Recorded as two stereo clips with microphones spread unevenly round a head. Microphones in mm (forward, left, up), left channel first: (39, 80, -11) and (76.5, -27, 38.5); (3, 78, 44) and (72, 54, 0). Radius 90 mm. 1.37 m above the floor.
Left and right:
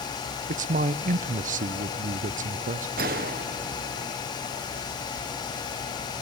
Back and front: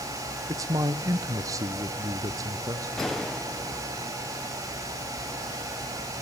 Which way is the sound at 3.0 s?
105° right.